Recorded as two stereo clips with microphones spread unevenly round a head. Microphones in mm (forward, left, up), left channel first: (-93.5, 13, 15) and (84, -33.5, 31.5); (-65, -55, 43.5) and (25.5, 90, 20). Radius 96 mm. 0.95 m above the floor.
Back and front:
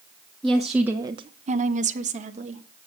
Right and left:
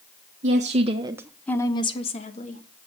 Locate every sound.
0.4 s a woman speaking: 85° left, 1.3 m; by 2.6 s 70° right, 2 m